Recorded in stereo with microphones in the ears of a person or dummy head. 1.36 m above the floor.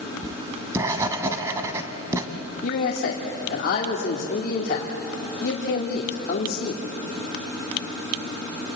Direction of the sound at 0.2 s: 15° right (ahead or behind).